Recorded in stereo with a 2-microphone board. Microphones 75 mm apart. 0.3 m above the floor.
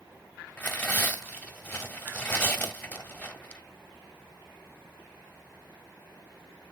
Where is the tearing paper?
20° left (ahead or behind), 1.5 m.